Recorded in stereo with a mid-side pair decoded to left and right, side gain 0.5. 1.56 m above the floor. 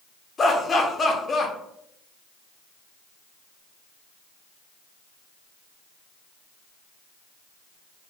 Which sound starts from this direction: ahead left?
Laughter, at 0.4 s.